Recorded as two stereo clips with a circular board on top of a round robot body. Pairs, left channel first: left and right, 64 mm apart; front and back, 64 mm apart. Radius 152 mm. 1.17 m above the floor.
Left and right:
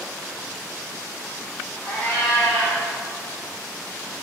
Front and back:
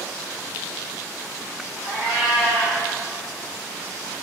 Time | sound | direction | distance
1.8 | a cat meowing | 130° right | 1.9 m